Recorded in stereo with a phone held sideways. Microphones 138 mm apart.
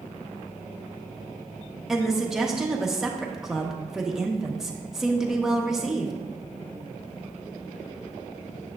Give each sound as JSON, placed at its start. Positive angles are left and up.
{"t": 1.9, "sound": "a woman speaking", "side_deg": -5, "distance_m": 1.0}